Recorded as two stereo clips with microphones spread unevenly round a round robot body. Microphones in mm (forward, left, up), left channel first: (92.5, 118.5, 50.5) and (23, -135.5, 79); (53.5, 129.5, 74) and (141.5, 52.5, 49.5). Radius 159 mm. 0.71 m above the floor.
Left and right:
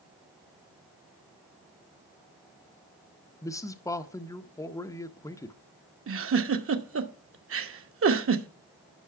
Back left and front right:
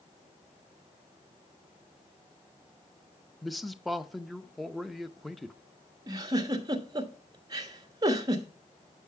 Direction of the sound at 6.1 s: 80° right.